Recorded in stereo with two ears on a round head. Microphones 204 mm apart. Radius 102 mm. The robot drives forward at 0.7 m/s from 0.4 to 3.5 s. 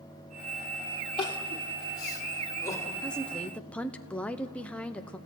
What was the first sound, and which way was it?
Crying, 25° left (ahead or behind).